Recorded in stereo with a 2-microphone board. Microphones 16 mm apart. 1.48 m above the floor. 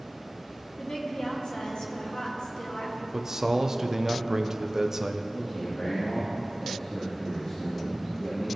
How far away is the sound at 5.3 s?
About 2.5 m.